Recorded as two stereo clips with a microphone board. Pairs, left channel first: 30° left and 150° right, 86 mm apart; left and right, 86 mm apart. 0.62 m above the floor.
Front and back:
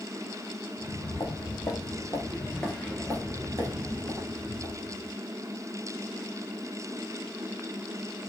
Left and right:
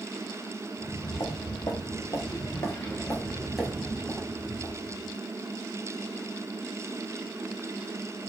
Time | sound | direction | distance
0.8 | footsteps | 60° left | 1.4 m